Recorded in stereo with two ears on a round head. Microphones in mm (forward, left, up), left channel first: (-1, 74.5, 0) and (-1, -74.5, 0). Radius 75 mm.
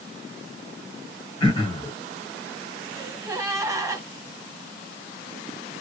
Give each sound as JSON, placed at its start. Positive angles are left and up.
{"t": 1.4, "sound": "throat clearing", "side_deg": 30, "distance_m": 1.9}
{"t": 3.0, "sound": "a gasp", "side_deg": -20, "distance_m": 1.0}